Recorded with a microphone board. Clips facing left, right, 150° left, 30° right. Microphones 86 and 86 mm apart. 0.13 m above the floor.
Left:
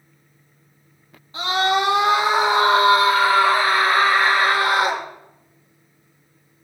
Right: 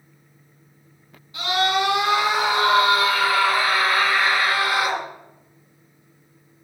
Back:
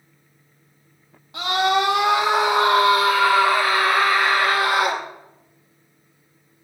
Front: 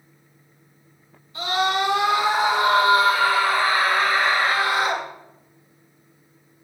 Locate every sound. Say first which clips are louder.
1.3 s a scream: left 2 dB, back 3 dB; 145° left, 7.5 m; by 5.0 s 130° left, 6 m